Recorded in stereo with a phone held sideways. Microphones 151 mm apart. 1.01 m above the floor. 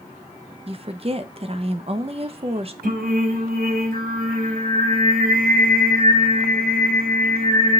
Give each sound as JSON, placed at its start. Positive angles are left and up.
{"t": 0.7, "sound": "a woman speaking", "side_deg": -40, "distance_m": 0.8}
{"t": 2.8, "sound": "singing", "side_deg": -85, "distance_m": 5.5}